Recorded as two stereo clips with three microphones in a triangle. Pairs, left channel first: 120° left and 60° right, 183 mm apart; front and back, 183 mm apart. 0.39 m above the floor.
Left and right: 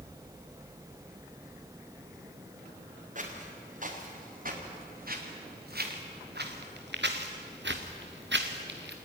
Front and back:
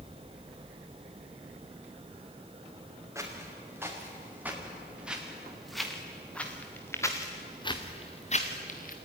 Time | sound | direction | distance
3.1 | footsteps | 105° right | 5 m